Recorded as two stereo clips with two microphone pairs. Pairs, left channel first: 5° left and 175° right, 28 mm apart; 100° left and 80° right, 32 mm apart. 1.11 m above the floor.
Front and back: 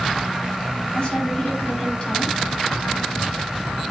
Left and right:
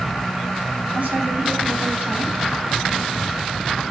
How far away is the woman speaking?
About 8 m.